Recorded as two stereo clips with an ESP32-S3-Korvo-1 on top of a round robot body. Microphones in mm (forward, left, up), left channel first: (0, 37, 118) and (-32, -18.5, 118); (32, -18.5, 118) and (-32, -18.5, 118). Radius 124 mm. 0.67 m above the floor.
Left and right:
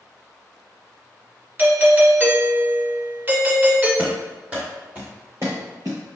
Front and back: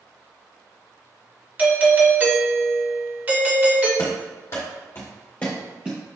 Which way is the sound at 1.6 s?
145° right.